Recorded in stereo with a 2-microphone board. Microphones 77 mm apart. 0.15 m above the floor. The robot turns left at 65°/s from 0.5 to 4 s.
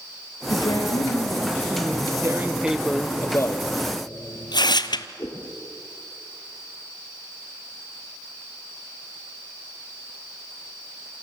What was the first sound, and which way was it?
A woman speaking, 100° left.